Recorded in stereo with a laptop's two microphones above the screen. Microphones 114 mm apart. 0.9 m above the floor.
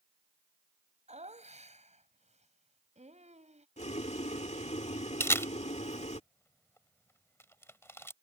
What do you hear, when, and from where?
1.1 s laughter: 85° right
3.8 s boiling: 75° left (ahead or behind)
5.2 s a camera shutter: 25° left (ahead or behind)